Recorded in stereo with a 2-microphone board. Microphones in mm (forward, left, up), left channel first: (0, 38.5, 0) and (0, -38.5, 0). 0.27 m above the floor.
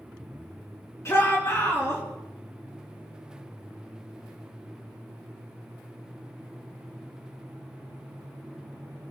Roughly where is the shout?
Left.